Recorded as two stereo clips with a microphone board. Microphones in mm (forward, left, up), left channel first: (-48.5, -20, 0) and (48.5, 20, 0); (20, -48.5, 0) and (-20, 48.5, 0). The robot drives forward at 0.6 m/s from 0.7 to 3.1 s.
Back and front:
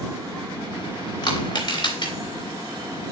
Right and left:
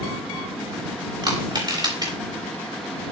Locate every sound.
1.2 s crushing: 160° left, 3 m